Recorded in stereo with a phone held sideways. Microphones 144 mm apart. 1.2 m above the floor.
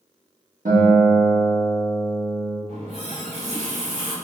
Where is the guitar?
65° right (ahead or behind), 1.0 m.